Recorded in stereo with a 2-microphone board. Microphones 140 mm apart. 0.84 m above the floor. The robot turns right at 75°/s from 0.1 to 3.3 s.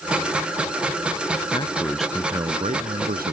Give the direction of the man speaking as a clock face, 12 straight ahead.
7 o'clock.